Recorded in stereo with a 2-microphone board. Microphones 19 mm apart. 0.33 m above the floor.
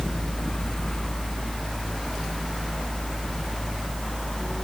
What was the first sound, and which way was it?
Only background noise.